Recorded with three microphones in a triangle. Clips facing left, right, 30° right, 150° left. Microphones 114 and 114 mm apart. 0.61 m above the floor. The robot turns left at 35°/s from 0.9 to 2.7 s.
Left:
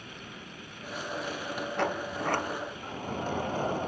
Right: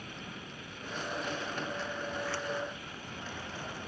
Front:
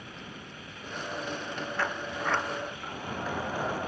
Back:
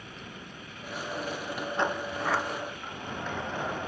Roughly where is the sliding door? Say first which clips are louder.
Left 6 dB, back 4 dB; left.